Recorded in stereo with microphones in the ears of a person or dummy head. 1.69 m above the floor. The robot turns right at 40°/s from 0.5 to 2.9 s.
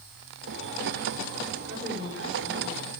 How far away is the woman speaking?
About 6.5 m.